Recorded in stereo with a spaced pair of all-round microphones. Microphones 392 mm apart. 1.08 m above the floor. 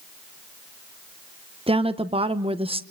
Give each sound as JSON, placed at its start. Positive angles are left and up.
{"t": 1.7, "sound": "a woman speaking", "side_deg": -15, "distance_m": 0.9}